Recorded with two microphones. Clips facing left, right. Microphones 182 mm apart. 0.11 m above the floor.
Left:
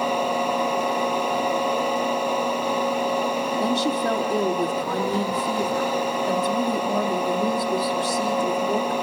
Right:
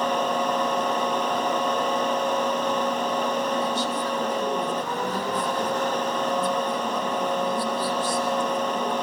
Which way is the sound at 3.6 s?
70° left (ahead or behind).